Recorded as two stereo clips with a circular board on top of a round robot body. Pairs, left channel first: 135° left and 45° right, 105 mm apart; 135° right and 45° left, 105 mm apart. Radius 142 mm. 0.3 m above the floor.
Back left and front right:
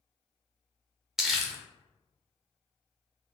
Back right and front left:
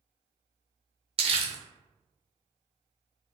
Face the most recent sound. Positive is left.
turn(degrees=40)